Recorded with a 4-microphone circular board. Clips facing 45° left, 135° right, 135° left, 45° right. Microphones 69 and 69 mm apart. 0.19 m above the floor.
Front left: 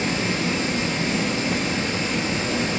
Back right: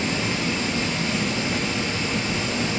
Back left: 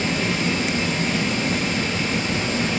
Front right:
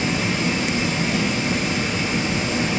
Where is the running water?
30° left, 3 m.